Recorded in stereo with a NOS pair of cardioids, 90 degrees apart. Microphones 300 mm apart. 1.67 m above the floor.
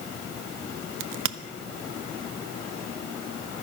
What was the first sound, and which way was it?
A crack, 45° right.